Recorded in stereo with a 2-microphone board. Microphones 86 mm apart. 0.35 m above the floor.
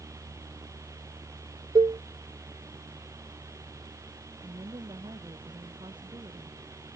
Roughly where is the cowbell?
Right.